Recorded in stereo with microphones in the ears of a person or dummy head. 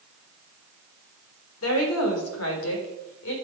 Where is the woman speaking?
80° left, 3.5 m; by 3.3 s 70° left (ahead or behind), 3.5 m.